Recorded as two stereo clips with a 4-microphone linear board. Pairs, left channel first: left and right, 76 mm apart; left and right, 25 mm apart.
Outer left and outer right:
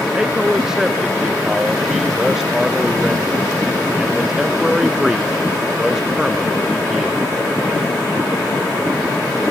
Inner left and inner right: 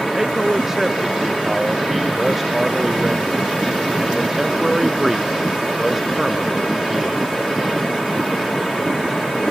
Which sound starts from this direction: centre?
A man speaking, at 0.1 s.